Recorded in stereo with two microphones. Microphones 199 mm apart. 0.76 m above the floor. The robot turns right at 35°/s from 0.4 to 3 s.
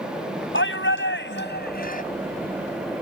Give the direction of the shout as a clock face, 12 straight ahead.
9 o'clock.